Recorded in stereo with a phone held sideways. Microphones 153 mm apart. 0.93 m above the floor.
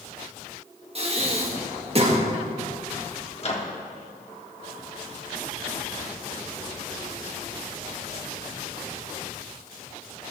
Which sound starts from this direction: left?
A microwave, at 3.4 s.